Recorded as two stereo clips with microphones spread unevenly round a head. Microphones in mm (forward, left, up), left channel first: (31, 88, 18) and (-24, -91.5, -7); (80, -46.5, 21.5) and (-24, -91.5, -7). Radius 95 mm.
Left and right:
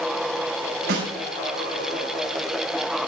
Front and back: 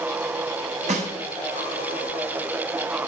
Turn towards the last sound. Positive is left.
turn(degrees=-135)